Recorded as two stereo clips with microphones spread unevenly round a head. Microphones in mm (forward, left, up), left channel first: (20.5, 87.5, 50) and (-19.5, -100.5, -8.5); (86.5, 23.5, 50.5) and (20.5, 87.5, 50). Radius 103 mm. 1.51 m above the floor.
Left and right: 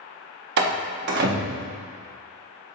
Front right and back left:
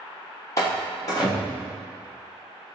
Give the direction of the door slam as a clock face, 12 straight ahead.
3 o'clock.